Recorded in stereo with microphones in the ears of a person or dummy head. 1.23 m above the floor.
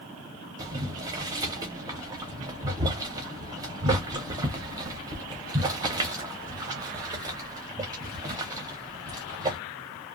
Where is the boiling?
20° right (ahead or behind), 0.6 m.